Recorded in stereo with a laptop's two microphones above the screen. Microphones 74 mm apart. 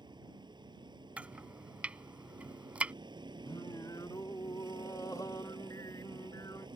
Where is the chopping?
15° right (ahead or behind).